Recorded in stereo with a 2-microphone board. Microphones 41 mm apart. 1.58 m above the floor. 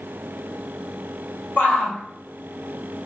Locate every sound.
1.6 s a shout: 55° left (ahead or behind), 1.9 m